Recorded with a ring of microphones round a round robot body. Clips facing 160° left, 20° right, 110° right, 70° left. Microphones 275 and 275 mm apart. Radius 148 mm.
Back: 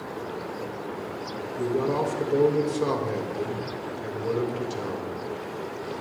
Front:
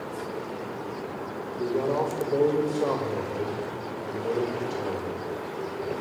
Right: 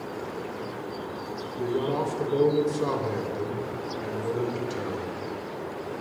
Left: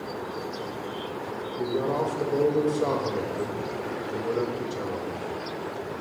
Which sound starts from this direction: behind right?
A man speaking, at 1.6 s.